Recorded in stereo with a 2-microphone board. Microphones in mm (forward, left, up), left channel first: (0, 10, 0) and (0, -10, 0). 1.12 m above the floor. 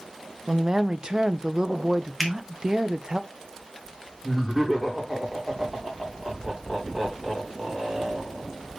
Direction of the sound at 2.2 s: 5° right (ahead or behind).